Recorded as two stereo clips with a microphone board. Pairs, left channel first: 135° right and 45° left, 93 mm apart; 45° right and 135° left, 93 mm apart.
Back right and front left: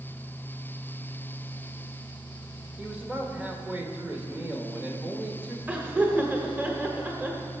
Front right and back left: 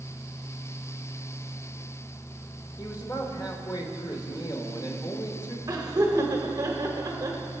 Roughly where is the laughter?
Left.